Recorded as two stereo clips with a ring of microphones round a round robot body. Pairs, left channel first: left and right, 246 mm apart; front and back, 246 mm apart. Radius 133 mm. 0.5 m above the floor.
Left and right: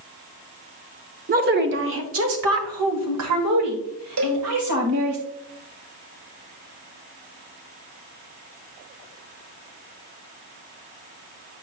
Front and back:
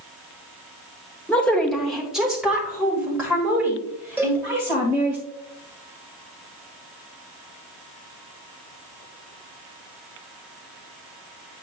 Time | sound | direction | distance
1.3 | a woman speaking | 80° right | 0.7 m
4.2 | a cowbell | 100° right | 0.9 m